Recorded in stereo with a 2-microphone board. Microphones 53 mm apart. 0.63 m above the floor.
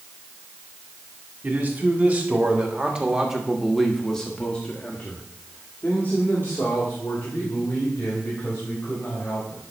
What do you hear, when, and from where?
1.4 s a man speaking: 30° right (ahead or behind), 2 m; by 9.6 s 40° left (ahead or behind), 4 m